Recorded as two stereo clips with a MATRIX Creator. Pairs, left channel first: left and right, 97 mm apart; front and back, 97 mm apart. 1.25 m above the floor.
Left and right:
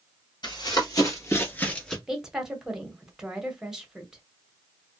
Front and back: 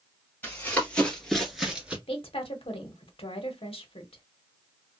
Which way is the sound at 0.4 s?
70° left.